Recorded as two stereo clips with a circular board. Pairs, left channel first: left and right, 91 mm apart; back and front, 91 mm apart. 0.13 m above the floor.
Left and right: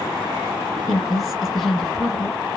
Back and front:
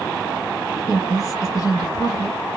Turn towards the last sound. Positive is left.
turn(degrees=-175)